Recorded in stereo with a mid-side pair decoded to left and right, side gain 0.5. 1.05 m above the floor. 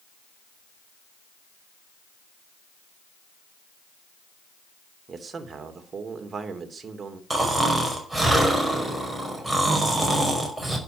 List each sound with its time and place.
5.1 s a man speaking: 35° right, 3 m
7.3 s snoring: 10° right, 5.5 m